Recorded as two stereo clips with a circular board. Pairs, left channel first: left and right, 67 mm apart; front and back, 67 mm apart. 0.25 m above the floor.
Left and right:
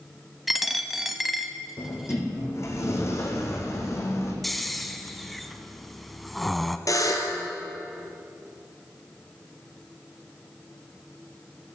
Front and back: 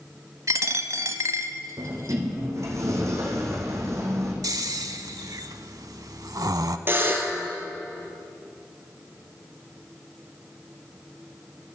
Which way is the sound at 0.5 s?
175° right.